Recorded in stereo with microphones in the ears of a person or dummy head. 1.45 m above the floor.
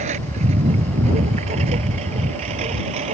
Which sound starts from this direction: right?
A lawn mower, at 0.0 s.